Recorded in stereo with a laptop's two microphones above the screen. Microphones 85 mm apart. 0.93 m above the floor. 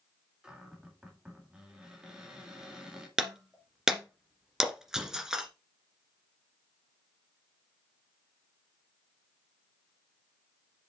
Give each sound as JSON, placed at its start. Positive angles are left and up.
{"t": 0.4, "sound": "a cupboard door", "side_deg": -10, "distance_m": 1.9}
{"t": 3.2, "sound": "breaking glass", "side_deg": -5, "distance_m": 1.8}